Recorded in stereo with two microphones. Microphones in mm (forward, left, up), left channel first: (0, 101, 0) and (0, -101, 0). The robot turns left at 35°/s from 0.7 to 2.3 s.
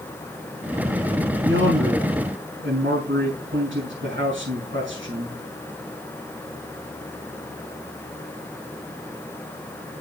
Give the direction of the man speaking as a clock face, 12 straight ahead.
3 o'clock.